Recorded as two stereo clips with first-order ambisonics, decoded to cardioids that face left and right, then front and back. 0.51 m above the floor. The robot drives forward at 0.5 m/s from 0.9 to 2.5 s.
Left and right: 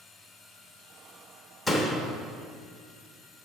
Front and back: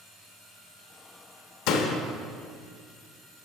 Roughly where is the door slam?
Ahead.